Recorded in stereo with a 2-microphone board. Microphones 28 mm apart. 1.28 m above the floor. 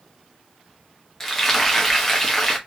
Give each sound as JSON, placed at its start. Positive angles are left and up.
{"t": 1.2, "sound": "frying", "side_deg": 10, "distance_m": 0.9}